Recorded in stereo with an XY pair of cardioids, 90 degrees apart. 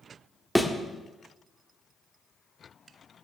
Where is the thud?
5° left, 1.6 m.